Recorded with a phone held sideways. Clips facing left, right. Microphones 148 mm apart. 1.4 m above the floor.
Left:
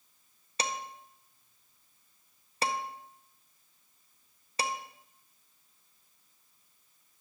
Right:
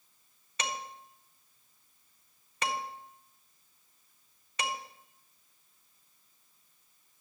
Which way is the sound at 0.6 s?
35° left (ahead or behind).